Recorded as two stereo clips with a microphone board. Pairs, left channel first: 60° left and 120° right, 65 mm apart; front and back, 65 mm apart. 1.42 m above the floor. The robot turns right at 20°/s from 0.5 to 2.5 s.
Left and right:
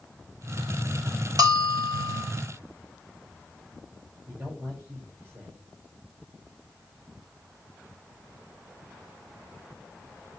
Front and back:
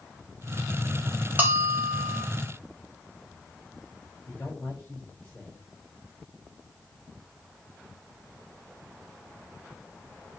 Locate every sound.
1.4 s a bell: 115° right, 3.5 m; by 2.2 s 95° right, 3.5 m
4.3 s a man speaking: 70° right, 6 m